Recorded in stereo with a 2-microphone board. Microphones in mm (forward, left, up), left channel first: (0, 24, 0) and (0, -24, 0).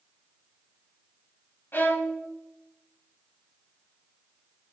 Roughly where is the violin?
Left.